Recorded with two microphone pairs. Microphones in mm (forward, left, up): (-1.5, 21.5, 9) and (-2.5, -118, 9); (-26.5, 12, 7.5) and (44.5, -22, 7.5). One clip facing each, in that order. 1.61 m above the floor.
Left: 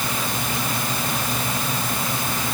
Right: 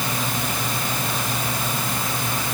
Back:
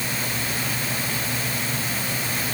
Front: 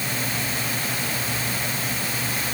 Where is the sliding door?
No sliding door in this recording.